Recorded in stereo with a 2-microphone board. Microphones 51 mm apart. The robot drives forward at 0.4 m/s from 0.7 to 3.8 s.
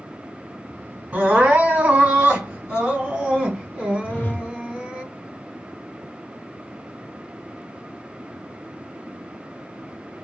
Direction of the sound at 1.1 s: 30° right (ahead or behind).